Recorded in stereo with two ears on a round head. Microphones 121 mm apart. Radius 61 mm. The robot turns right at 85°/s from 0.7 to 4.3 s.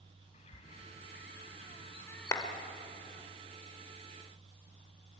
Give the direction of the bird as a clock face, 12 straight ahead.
11 o'clock.